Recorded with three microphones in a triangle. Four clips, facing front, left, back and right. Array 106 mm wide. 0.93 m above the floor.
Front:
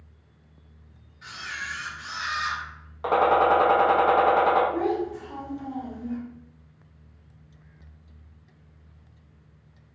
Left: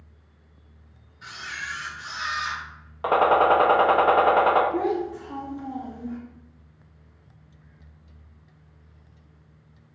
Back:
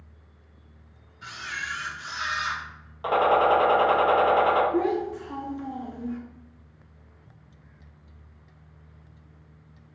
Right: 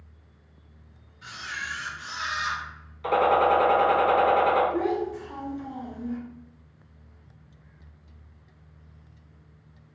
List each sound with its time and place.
1.2 s a camera shutter: 140° left, 1.1 m
3.0 s a gunshot: 75° left, 0.6 m
4.7 s a child speaking: 120° left, 1.2 m